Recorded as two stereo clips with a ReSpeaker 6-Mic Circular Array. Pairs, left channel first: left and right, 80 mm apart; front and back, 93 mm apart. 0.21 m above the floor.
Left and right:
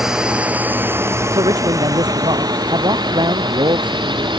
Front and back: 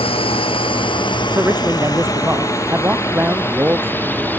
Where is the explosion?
I don't hear an explosion.